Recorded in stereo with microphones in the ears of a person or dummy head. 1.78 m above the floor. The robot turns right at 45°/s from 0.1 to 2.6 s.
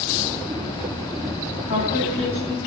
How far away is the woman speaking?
About 3 m.